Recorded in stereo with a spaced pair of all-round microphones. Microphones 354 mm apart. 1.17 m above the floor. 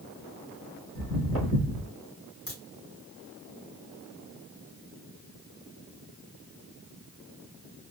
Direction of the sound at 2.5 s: 60° left (ahead or behind).